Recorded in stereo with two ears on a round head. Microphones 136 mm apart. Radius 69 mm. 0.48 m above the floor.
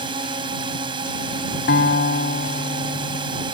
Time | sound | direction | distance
0.0 | a drone | 30° right (ahead or behind) | ?
1.7 | a guitar | 85° left | ?